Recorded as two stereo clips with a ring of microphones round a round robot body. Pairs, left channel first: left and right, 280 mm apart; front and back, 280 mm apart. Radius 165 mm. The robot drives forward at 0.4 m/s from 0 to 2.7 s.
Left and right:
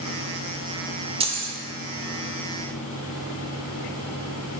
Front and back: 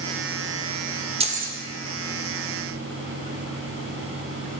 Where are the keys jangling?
135° right, 0.5 m; by 1.6 s 150° right, 0.6 m.